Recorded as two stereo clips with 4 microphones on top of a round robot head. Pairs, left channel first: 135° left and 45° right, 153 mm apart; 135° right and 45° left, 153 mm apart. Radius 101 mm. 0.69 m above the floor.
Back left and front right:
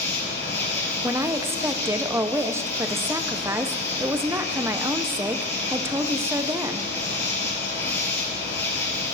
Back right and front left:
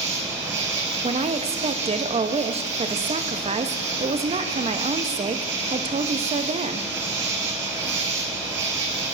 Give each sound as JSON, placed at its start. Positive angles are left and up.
{"t": 0.0, "sound": "an insect", "azimuth_deg": 60, "distance_m": 1.3}
{"t": 1.0, "sound": "a woman speaking", "azimuth_deg": 20, "distance_m": 0.6}